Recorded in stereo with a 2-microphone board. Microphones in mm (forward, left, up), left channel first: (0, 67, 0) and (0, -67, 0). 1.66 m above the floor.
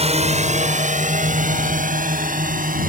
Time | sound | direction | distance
0.0 | a drone | 50° right (ahead or behind) | ?